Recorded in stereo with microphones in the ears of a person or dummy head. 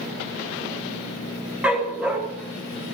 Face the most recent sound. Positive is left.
turn(degrees=-5)  # may be behind; listen again after turning